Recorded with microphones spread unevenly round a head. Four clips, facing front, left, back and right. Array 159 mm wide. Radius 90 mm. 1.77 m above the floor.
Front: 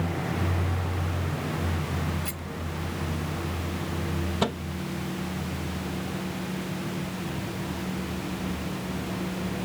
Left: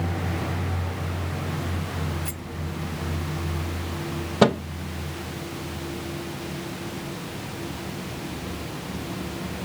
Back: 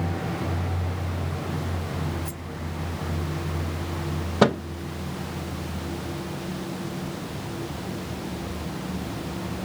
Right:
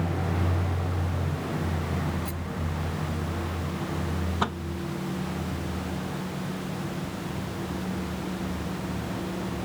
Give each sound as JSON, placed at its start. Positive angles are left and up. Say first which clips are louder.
{"t": 2.2, "sound": "a rattle", "louder": "right 1 dB, back 1 dB", "azimuth_deg": 55}
{"t": 4.4, "sound": "a microwave", "louder": "left 13 dB, back 10 dB", "azimuth_deg": 140}